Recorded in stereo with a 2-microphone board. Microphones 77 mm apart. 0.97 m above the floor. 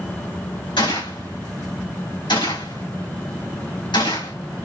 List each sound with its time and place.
0.8 s a gunshot: 85° left, 4 m